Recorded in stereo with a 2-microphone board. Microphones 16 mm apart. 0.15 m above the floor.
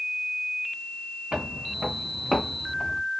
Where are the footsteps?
75° right (ahead or behind), 0.8 m; by 3.0 s 15° left (ahead or behind), 1.1 m.